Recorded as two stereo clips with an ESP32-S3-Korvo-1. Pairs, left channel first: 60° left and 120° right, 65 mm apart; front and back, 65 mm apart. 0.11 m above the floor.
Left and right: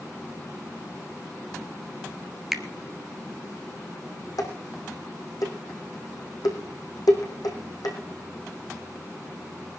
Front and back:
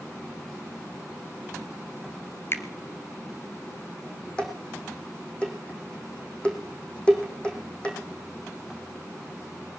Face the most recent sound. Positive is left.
turn(degrees=75)